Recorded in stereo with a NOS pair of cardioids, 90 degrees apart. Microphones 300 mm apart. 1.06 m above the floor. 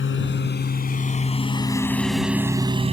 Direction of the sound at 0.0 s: 45° left.